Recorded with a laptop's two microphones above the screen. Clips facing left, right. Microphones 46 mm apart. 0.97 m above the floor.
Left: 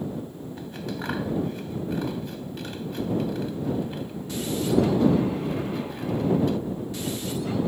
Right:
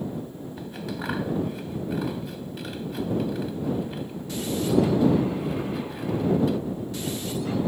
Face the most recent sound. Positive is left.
turn(degrees=-5)  # may be behind; listen again after turning